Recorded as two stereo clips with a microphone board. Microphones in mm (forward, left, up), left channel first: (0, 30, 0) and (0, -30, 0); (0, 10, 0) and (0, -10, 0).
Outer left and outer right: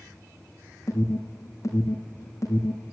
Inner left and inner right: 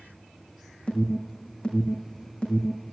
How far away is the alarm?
About 5.5 m.